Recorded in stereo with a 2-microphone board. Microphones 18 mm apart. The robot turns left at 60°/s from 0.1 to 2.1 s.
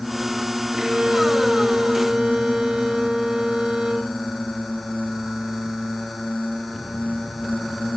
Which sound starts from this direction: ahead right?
A violin, at 0.7 s.